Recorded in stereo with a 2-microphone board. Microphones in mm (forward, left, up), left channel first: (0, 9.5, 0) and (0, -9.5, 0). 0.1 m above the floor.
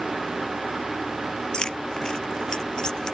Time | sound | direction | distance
1.5 | keys jangling | 50° left (ahead or behind) | ?